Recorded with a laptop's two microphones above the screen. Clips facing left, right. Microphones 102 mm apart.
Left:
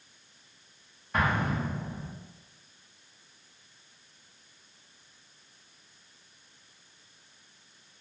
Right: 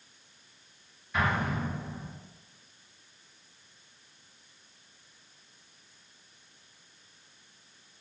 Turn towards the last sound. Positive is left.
turn(degrees=45)  # may be behind; listen again after turning